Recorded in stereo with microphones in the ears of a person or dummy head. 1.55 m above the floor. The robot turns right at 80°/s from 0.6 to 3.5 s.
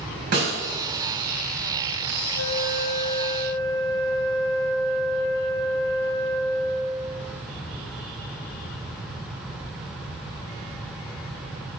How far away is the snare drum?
About 5 m.